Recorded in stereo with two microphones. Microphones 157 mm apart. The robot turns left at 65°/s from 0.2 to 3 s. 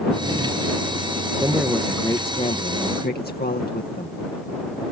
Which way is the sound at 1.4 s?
155° right.